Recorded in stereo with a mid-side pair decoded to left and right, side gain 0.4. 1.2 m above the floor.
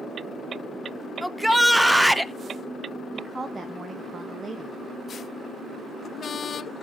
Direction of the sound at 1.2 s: 5° right.